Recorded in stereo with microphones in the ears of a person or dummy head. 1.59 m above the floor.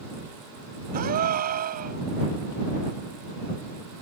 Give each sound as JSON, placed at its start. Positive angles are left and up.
{"t": 0.9, "sound": "a gasp", "side_deg": -40}